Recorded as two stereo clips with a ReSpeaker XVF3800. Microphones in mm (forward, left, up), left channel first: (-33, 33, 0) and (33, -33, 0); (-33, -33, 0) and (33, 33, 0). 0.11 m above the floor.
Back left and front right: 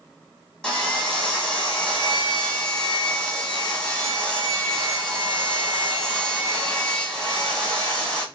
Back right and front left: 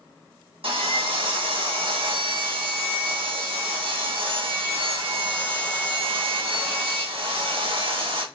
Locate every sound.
0.6 s sawing: 55° left, 0.9 m